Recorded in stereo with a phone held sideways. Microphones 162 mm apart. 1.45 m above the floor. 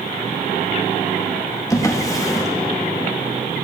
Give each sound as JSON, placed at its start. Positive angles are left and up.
{"t": 1.7, "sound": "a drawer", "side_deg": 20, "distance_m": 0.8}